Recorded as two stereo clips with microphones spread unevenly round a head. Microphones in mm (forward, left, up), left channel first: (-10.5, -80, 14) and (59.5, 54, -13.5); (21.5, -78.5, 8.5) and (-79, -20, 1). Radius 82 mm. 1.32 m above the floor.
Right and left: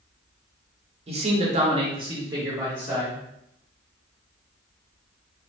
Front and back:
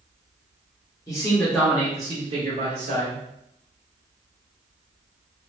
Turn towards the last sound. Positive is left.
turn(degrees=140)